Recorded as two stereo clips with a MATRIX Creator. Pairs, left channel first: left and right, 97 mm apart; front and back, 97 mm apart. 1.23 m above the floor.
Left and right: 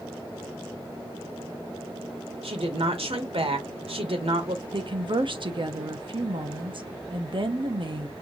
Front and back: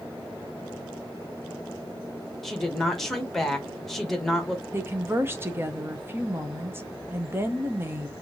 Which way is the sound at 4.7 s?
115° right.